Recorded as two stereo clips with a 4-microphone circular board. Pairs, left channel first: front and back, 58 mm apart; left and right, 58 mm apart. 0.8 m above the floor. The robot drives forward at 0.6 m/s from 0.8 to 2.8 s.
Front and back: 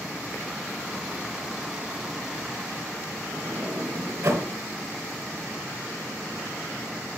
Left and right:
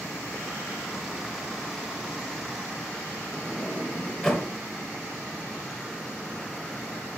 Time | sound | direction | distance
3.3 | a sliding door | 170° left | 0.9 m